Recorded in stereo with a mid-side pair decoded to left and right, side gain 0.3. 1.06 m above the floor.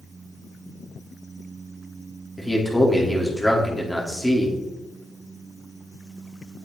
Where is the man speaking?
5° right, 3 m.